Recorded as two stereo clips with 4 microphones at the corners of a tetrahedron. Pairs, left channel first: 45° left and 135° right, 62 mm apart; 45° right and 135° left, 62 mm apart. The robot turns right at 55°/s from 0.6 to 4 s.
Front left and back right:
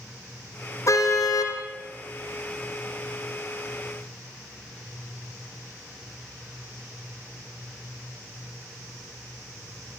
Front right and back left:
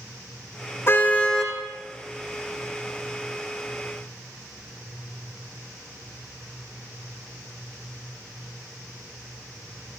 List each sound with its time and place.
0.9 s a car horn: 5° left, 5 m; by 1.6 s 40° left, 5 m